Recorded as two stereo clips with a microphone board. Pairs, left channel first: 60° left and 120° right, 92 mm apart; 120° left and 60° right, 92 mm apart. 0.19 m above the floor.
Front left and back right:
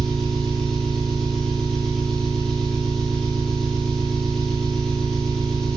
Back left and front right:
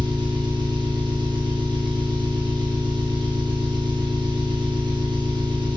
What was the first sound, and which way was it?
An engine running, 25° right.